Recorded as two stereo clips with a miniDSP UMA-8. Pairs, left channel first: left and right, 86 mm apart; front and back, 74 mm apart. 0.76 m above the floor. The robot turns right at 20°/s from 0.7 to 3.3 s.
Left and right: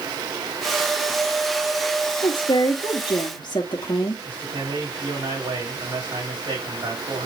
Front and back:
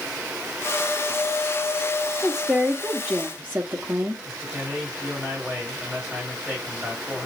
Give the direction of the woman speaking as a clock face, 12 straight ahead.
9 o'clock.